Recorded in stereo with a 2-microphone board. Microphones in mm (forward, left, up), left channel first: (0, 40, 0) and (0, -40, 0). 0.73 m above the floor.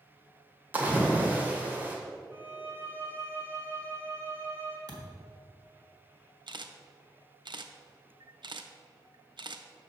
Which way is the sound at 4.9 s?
55° right (ahead or behind).